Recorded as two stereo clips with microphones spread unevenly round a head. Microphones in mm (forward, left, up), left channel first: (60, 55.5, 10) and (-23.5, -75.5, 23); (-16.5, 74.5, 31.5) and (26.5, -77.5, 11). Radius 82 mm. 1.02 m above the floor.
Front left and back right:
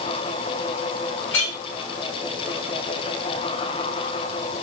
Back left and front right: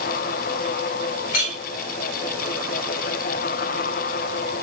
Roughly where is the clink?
Left.